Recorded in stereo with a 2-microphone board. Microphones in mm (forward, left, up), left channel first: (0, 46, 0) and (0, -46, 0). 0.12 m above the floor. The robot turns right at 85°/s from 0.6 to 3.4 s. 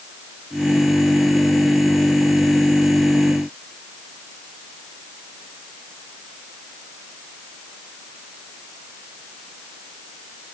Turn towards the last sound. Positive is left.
No sound to turn to.